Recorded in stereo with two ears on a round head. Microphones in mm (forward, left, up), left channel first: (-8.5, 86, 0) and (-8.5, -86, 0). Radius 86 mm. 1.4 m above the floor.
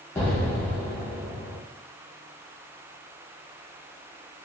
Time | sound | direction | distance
0.1 | an explosion | 10° left (ahead or behind) | 1.1 m